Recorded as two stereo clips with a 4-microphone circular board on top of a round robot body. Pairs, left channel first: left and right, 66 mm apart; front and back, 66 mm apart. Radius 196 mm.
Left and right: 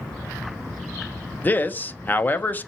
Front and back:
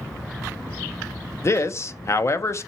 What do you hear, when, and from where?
1.4 s a man speaking: 35° left, 0.8 m